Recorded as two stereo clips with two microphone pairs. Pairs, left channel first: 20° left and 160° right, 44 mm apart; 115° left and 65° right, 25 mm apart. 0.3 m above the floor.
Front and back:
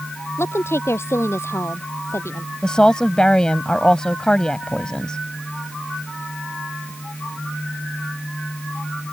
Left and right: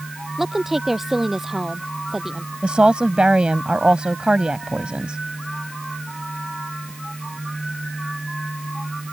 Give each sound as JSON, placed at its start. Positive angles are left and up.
{"t": 0.4, "sound": "a woman speaking", "azimuth_deg": 15}
{"t": 2.6, "sound": "a woman speaking", "azimuth_deg": -45}